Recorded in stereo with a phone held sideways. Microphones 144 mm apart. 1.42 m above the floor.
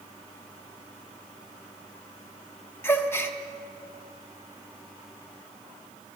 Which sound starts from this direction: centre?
A gasp, at 2.8 s.